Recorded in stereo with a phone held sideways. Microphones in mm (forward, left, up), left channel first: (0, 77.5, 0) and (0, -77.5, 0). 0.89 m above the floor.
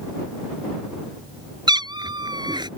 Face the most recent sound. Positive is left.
turn(degrees=-30)  # may be behind; listen again after turning